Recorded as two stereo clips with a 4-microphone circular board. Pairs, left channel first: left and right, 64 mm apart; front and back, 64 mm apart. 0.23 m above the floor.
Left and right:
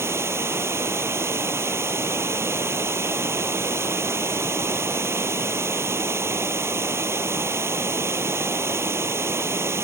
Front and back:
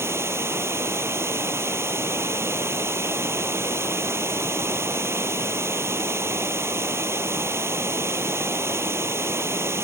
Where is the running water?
135° right.